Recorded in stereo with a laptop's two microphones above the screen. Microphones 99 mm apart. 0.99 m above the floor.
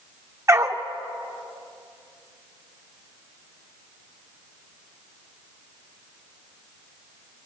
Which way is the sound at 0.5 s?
30° right (ahead or behind).